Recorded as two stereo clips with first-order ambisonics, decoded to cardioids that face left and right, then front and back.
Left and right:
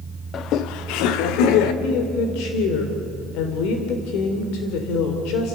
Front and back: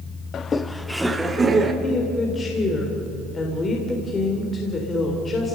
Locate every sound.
0.3 s laughter: 45° left, 0.8 m; by 1.7 s 110° left, 2 m
1.8 s a woman speaking: 75° left, 3 m